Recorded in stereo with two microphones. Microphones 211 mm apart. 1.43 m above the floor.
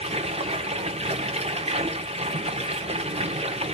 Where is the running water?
30° right (ahead or behind), 1.2 m.